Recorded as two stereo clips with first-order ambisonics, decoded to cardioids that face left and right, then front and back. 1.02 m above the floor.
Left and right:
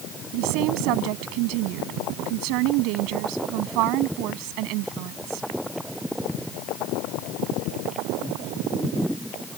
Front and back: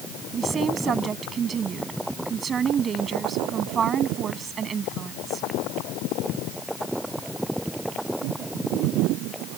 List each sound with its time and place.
0.3 s a woman speaking: 115° right